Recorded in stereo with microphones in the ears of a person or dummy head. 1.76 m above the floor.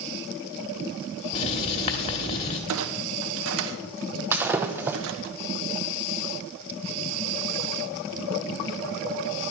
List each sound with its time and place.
1.3 s writing: 35° left (ahead or behind), 1.9 m
2.7 s a clunk: 70° right (ahead or behind), 1.3 m
4.3 s breaking glass: 15° right (ahead or behind), 0.9 m